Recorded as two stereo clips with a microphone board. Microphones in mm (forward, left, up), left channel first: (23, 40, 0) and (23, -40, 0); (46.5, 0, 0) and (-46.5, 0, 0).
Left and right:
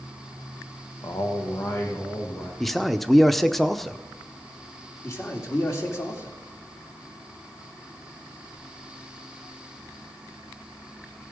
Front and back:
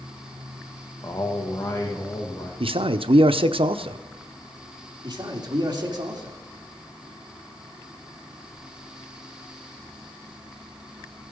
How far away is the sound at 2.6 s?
About 0.6 m.